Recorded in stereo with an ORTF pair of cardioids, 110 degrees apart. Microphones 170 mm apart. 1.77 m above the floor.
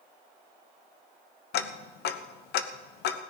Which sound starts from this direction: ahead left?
Ticking, at 1.5 s.